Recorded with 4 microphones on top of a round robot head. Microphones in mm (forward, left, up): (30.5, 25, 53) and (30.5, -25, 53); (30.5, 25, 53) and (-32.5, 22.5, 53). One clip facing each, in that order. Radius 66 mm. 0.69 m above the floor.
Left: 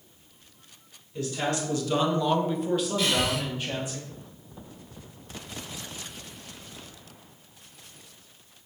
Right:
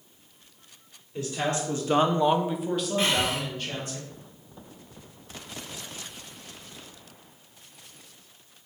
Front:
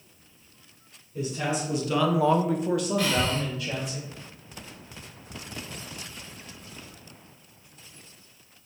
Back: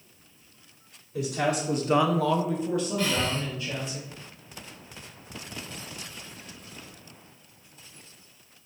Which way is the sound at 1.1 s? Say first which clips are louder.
Even, back 2 dB; 155° right.